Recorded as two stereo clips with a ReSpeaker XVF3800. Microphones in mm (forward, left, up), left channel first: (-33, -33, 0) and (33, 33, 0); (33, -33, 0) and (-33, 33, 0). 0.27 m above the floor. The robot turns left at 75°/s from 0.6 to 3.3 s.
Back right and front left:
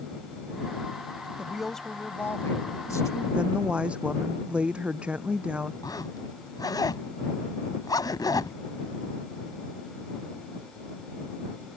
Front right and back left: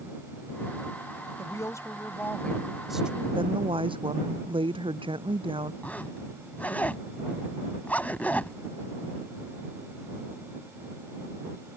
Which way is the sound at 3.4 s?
125° left.